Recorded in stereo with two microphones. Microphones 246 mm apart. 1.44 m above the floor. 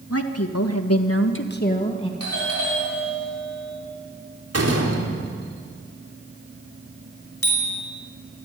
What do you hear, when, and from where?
0.1 s a woman speaking: 70° left (ahead or behind), 2 m; by 2.1 s 20° left (ahead or behind), 2 m
2.2 s a doorbell: 80° right, 6.5 m
4.5 s a door slam: 80° right, 3.5 m
7.4 s a bicycle bell: 60° left (ahead or behind), 5 m